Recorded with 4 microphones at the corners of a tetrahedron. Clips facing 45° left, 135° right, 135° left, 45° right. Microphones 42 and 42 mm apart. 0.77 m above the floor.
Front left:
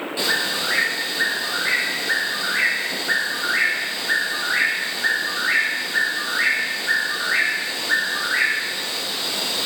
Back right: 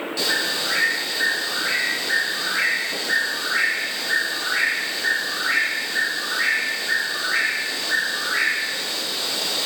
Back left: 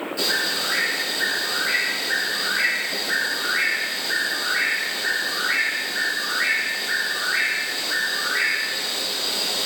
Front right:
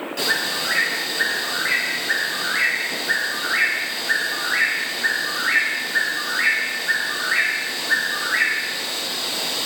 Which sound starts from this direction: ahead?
A bird, at 0.2 s.